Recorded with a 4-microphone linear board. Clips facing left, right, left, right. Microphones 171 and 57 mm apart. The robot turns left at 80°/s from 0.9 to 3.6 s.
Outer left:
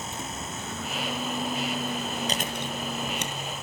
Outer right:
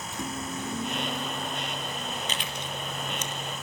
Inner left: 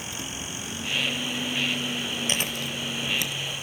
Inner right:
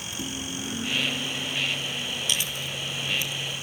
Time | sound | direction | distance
0.1 | a microwave | 160° right | 2.5 m
2.3 | chewing | 35° left (ahead or behind) | 1.7 m